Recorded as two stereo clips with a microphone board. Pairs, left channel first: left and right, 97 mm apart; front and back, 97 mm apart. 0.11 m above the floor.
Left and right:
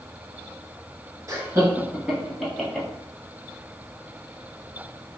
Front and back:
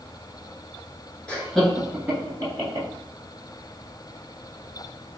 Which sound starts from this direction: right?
Laughter, at 1.3 s.